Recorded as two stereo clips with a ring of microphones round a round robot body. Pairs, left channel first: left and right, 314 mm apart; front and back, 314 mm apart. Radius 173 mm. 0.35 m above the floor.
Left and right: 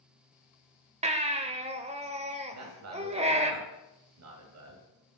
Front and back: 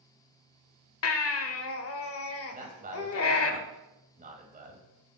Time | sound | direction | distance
1.0 | a baby crying | 25° right | 1.0 m
2.5 | a man speaking | 120° right | 2.5 m